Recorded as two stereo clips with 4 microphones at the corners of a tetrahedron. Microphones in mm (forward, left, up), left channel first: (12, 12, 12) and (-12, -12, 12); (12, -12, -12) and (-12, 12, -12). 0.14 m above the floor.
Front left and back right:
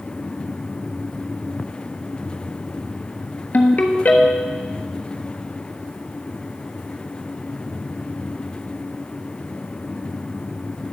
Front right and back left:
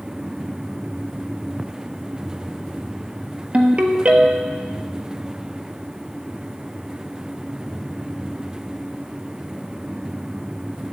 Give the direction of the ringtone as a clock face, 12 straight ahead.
9 o'clock.